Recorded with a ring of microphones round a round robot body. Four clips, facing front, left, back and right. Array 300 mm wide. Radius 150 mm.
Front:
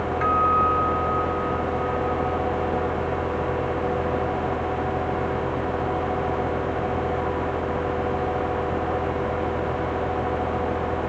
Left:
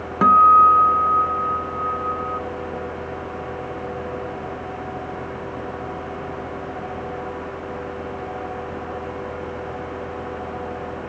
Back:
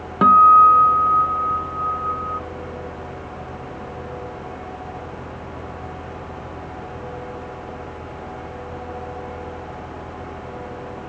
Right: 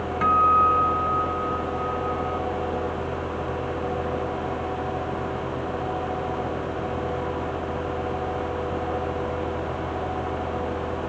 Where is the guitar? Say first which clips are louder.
Left 7 dB, back 11 dB; 145° left.